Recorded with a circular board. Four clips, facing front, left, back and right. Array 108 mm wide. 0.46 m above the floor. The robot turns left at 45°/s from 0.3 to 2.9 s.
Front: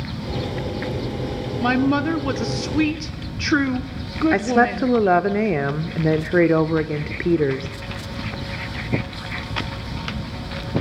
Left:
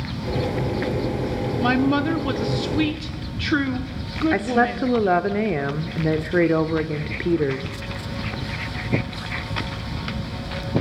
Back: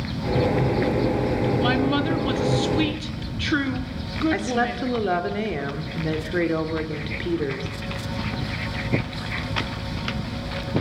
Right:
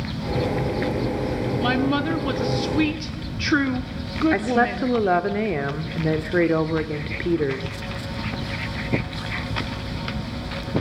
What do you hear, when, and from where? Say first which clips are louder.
1.6 s a woman speaking: left 3 dB, front 8 dB; 30° left, 1.2 m; by 5.0 s 25° right, 1.2 m
4.3 s a woman speaking: left 2 dB, front 9 dB; 5° left, 0.8 m